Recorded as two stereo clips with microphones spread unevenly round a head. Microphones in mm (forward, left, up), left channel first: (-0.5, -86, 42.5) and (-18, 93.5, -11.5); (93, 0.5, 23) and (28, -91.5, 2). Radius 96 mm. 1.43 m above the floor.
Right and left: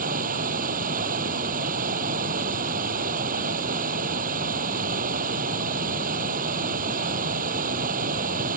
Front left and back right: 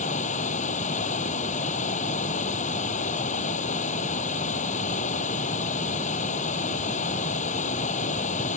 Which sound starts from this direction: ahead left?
Running water, at 0.0 s.